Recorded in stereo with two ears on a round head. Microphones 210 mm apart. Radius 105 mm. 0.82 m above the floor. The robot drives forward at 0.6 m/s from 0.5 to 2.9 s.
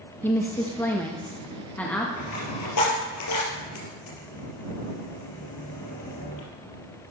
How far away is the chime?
No chime in this recording.